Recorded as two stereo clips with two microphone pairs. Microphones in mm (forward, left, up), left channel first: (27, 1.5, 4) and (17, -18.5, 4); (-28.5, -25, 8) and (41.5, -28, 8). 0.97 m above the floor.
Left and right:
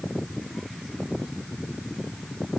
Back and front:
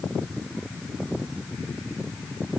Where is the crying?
No crying in this recording.